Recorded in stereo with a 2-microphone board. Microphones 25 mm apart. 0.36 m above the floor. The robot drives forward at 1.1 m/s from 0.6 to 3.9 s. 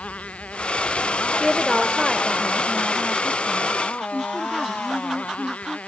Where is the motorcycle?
50° left (ahead or behind); by 5.9 s 55° left (ahead or behind).